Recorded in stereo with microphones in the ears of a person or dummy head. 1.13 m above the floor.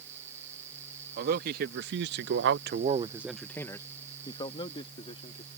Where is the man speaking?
60° right (ahead or behind); by 5.5 s 40° left (ahead or behind).